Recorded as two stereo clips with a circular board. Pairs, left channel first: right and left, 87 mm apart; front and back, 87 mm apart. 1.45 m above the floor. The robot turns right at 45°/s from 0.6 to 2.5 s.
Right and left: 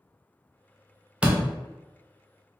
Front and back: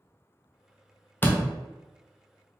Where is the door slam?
30° left, 0.6 m; by 1.5 s 45° left, 0.6 m.